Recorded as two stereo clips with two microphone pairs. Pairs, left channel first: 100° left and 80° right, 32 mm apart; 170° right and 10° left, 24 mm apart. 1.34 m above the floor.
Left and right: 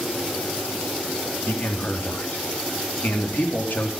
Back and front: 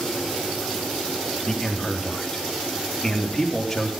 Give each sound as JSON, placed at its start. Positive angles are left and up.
{"t": 1.5, "sound": "a man speaking", "azimuth_deg": 115, "distance_m": 3.5}